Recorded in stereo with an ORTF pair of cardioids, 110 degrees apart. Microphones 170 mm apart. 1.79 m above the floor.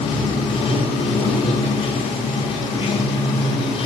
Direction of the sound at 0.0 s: 35° left.